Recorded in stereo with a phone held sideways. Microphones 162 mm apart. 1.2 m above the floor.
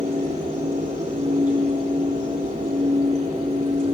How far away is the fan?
About 8.5 m.